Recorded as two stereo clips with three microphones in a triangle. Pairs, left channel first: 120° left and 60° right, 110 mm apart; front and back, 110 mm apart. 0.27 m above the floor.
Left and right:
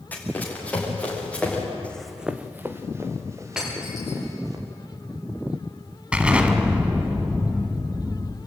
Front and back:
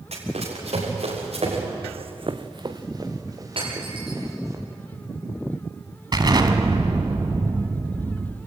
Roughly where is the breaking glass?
Behind right.